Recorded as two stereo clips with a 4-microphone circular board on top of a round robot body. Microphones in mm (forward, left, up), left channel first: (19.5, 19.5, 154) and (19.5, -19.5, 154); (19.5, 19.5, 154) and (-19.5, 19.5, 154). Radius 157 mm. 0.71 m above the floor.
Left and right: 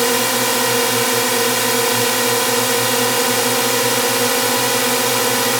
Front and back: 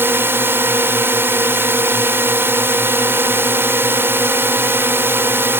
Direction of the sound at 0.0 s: 175° right.